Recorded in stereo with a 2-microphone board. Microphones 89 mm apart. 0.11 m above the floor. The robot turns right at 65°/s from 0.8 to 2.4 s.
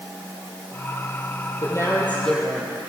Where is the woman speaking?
130° left, 3 m; by 2.9 s straight behind, 3 m.